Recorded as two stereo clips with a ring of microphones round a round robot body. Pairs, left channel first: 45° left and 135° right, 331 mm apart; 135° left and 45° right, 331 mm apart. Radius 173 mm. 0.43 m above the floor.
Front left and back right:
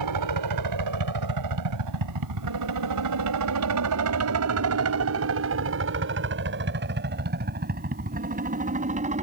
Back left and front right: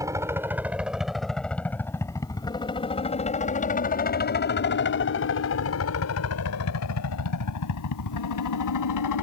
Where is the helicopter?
125° right; by 9.2 s 155° left.